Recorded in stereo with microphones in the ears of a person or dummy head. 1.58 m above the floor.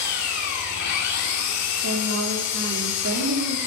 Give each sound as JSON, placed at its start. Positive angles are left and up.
{"t": 0.0, "sound": "an engine running", "side_deg": 60, "distance_m": 2.5}
{"t": 1.8, "sound": "a woman speaking", "side_deg": -70, "distance_m": 4.5}